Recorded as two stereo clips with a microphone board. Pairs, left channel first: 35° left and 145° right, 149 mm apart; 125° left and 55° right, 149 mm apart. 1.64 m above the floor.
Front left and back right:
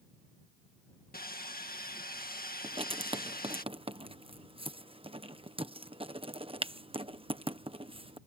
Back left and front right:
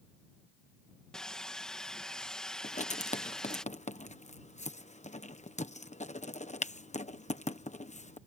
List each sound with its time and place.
1.1 s sawing: 40° left
2.6 s writing: 160° left